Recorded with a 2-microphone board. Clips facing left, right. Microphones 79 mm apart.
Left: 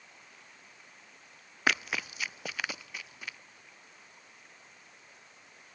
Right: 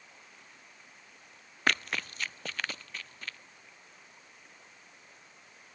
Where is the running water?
Centre (ahead or behind).